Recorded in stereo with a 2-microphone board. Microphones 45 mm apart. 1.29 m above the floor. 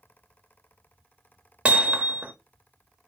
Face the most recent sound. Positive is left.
turn(degrees=-30)  # may be behind; listen again after turning